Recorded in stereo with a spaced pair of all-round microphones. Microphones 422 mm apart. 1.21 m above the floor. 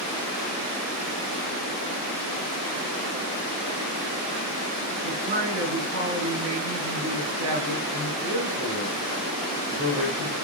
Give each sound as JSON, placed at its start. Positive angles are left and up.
{"t": 5.0, "sound": "a man speaking", "side_deg": -35, "distance_m": 7.5}